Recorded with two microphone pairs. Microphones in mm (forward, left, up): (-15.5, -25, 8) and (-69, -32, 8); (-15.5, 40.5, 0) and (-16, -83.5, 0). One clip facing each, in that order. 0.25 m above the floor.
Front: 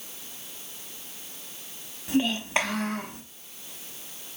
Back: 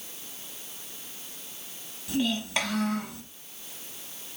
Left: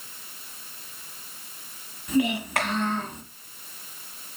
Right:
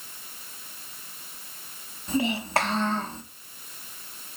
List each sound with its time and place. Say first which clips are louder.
2.1 s a child speaking: front 3 dB, left 2 dB; 45° right, 1.1 m